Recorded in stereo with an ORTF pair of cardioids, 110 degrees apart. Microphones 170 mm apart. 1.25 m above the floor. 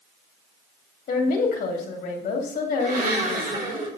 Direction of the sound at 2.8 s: 60° right.